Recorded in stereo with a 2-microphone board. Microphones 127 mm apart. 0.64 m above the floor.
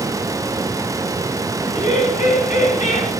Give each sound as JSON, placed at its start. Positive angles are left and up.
{"t": 1.6, "sound": "laughter", "side_deg": 80, "distance_m": 5.5}